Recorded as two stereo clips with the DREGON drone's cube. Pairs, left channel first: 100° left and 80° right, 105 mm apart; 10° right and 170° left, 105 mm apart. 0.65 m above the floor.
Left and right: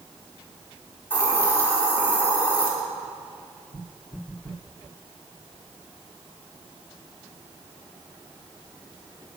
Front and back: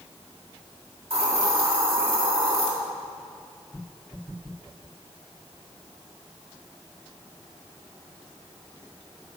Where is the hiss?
165° left, 1.7 m.